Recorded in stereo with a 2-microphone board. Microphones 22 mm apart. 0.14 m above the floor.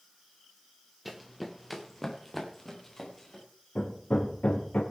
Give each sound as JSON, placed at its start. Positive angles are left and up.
{"t": 1.1, "sound": "running footsteps", "side_deg": -5, "distance_m": 1.3}
{"t": 3.8, "sound": "hammering", "side_deg": 65, "distance_m": 3.0}